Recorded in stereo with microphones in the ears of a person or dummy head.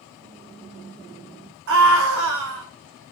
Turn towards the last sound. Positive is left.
turn(degrees=-65)  # may be behind; listen again after turning